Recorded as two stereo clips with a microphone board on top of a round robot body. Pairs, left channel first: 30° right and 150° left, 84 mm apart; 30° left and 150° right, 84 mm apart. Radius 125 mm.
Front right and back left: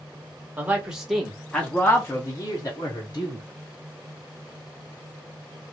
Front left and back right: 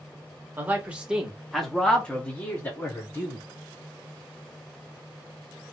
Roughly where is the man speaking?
Behind.